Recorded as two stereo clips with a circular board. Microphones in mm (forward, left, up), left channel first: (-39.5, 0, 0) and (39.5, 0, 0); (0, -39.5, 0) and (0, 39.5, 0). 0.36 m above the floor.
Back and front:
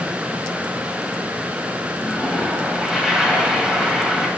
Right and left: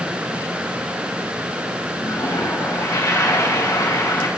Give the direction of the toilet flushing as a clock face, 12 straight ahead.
3 o'clock.